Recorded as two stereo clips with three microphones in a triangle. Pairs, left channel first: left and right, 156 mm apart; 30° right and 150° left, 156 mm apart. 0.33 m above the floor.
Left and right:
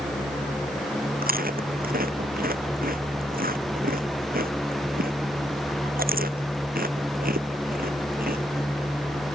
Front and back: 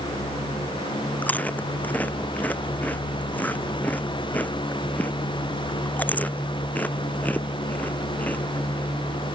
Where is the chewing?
110° right.